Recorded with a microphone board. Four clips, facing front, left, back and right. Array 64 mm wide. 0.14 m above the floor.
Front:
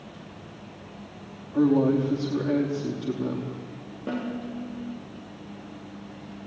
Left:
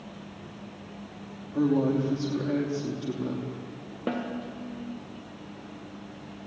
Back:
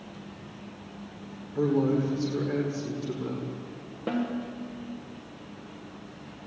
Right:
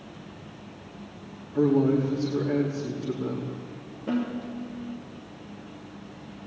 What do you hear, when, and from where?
1.5 s a woman speaking: 25° left, 5 m
4.1 s a snare drum: 100° left, 5 m